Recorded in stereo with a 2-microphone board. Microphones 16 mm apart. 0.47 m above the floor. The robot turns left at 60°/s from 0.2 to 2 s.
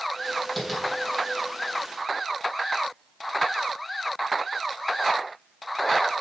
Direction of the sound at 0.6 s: 25° left (ahead or behind).